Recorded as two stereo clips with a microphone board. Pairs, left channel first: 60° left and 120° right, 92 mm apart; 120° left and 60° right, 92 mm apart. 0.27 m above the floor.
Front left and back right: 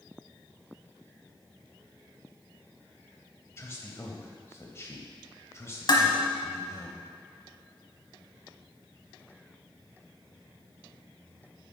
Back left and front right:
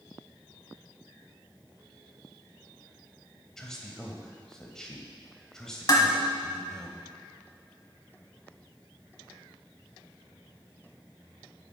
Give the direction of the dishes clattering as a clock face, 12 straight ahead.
9 o'clock.